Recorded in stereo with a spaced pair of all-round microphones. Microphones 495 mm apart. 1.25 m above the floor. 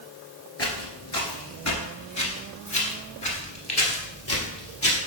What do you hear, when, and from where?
0.6 s footsteps: 30° left (ahead or behind), 1.5 m; by 5.0 s 25° left (ahead or behind), 2 m